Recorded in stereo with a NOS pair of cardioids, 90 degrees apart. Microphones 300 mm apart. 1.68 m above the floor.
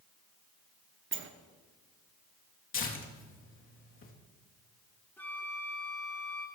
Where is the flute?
5° left, 3 m.